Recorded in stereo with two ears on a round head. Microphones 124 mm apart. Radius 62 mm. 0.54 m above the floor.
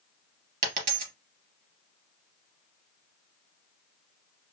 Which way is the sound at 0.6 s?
60° right (ahead or behind).